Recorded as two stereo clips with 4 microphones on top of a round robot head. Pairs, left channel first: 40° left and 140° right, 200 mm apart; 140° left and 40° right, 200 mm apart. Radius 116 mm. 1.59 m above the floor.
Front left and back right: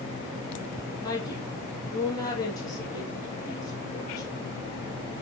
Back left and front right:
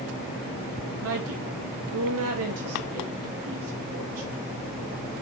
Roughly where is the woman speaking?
Ahead right.